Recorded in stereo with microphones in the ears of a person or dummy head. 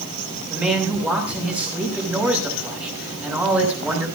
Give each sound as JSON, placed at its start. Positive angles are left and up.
{"t": 0.5, "sound": "a man speaking", "side_deg": -10, "distance_m": 7.5}